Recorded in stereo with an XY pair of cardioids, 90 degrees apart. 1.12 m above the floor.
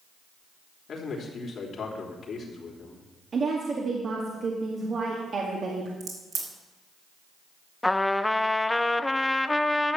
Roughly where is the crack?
Ahead right.